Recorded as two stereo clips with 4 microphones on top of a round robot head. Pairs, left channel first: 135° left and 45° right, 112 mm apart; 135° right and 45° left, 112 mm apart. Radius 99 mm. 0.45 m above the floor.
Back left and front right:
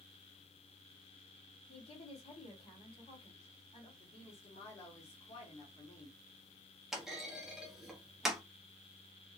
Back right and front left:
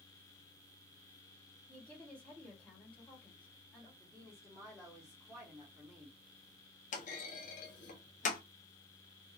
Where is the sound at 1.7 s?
150° left, 2 m.